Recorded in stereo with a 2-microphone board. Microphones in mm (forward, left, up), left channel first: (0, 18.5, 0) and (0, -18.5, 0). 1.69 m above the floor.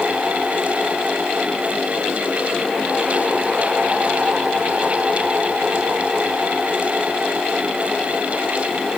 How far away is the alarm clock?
No alarm clock in this recording.